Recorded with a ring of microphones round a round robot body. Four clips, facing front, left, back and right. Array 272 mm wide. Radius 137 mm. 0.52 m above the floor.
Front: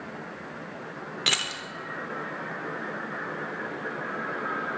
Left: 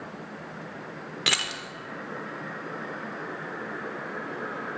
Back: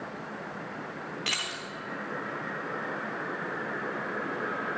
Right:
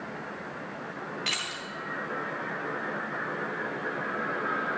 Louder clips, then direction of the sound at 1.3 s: Left 4 dB, front 3 dB; 60° left.